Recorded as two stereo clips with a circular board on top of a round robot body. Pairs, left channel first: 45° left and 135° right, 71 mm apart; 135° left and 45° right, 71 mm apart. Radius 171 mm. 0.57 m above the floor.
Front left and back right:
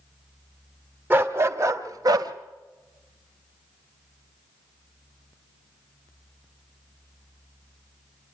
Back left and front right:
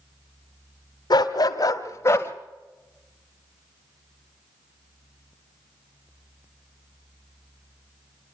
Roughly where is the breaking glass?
No breaking glass in this recording.